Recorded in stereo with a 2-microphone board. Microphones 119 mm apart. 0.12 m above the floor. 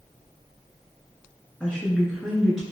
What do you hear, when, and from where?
1.6 s a woman speaking: 5° left (ahead or behind), 1.3 m; by 2.6 s centre (ahead or behind), 1.6 m